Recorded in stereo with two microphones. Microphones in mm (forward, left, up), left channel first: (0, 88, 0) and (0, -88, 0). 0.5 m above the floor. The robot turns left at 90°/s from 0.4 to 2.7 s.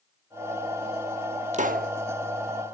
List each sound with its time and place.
1.5 s a pop: 45° right, 0.8 m; by 1.9 s 80° right, 0.8 m